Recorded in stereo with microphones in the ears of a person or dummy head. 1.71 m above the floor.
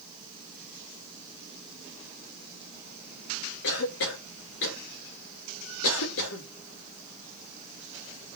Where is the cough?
75° left (ahead or behind), 2.5 m.